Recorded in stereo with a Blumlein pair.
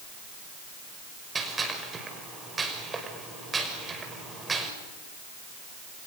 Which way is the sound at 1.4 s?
15° right.